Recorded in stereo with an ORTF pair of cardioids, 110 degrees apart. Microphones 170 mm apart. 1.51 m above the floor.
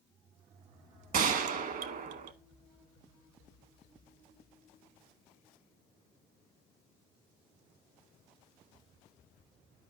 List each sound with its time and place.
1.1 s a gunshot: 60° right, 1.4 m